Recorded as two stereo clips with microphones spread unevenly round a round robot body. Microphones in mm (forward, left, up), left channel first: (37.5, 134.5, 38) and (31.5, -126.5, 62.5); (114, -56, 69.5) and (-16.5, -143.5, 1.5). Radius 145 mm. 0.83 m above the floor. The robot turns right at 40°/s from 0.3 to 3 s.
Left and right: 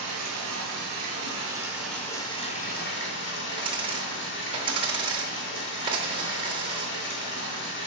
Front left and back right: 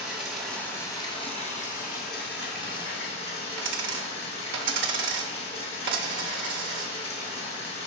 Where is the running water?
65° right, 2.5 m; by 7.9 s 45° left, 2.5 m.